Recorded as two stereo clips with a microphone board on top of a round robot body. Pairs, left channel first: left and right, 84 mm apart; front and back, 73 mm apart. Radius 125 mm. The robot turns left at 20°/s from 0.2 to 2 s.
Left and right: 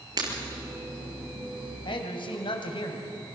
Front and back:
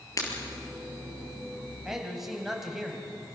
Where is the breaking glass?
45° right, 4 m; by 0.3 s 50° right, 4 m.